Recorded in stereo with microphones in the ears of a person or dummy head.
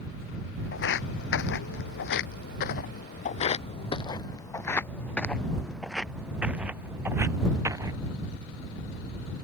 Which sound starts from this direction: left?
Footsteps, at 0.7 s.